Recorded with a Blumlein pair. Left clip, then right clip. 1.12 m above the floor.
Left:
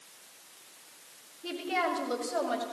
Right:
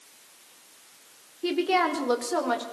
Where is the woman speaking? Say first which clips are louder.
Right 7 dB; 40° right, 3.5 m; by 2.6 s 30° right, 4.5 m.